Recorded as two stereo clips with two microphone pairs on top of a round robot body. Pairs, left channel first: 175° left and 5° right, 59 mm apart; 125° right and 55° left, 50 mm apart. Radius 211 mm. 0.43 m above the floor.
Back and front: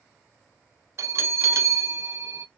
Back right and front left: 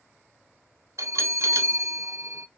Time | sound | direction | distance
1.0 | a bell | 35° left | 0.6 m